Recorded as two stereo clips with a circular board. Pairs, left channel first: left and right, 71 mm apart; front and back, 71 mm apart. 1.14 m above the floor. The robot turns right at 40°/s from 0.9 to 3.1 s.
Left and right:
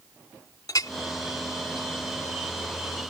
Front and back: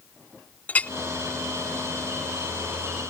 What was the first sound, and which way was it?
A clink, 65° left.